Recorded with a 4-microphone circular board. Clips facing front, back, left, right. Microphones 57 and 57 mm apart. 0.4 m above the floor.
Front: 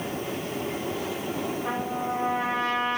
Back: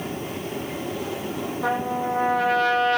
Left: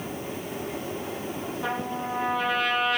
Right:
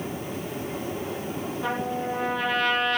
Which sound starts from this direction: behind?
A trumpet, at 1.6 s.